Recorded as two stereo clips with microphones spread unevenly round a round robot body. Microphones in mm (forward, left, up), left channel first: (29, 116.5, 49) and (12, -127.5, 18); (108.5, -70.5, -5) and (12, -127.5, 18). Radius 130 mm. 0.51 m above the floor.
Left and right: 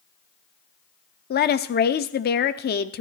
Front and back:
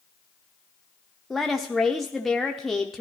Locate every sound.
1.3 s a woman speaking: 100° left, 0.7 m